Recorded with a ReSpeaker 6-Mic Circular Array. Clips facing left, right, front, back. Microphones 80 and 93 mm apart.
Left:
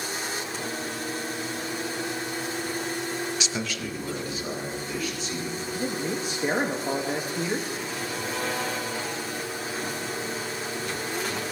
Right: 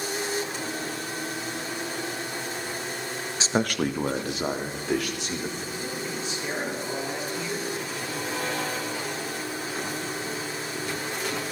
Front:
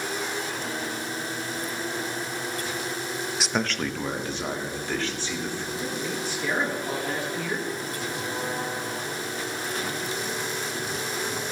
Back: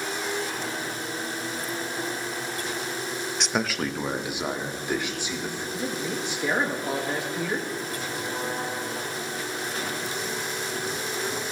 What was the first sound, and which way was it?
A man speaking, 85° right.